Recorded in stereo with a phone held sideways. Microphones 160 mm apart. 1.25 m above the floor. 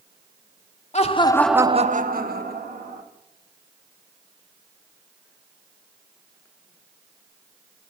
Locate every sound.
0.9 s laughter: 45° left (ahead or behind), 1.0 m; by 3.0 s 90° right, 2.0 m